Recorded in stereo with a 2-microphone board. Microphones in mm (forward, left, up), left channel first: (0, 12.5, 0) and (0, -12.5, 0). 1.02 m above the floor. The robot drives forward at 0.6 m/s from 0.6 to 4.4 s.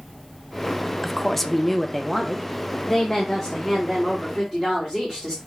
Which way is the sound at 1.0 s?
5° left (ahead or behind).